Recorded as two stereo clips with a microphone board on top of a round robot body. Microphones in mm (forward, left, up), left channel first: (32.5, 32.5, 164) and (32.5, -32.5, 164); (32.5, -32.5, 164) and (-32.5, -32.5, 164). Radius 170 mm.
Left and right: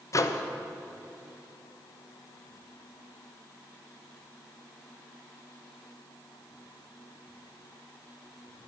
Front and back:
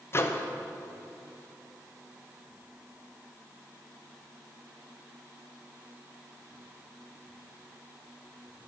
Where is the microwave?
50° left, 0.7 m.